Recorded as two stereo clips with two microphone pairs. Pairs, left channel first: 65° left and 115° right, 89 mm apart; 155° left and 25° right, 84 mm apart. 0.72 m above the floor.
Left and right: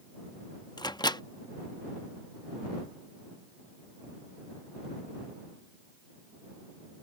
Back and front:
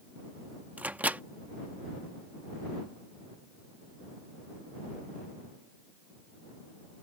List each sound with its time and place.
0.8 s a microwave: 45° left